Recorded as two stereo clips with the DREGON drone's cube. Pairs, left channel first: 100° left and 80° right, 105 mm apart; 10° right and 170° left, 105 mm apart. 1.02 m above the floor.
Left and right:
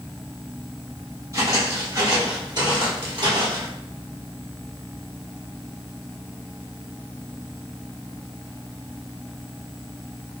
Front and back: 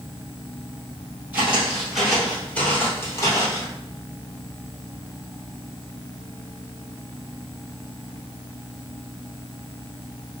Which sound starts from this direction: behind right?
Footsteps, at 1.3 s.